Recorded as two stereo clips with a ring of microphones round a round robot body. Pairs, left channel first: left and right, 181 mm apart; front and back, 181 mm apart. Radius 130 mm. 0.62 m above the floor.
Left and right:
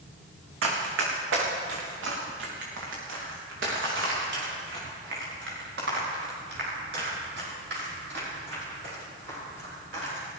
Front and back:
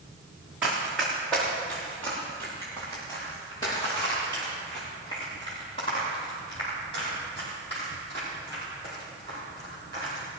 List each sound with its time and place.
0.6 s running footsteps: 95° right, 3 m; by 10.2 s 70° right, 13.5 m